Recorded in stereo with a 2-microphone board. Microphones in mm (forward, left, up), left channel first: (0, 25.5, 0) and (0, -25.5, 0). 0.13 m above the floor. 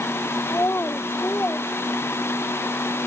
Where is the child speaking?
50° left (ahead or behind); by 2.6 s 35° left (ahead or behind).